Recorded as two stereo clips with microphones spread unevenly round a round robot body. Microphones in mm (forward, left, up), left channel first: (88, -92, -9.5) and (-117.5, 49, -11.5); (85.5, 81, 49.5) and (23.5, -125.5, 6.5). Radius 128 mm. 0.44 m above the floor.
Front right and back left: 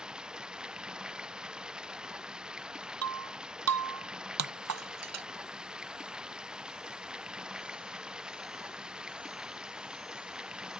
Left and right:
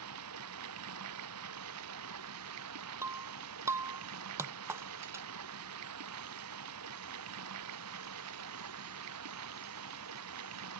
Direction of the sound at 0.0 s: 130° right.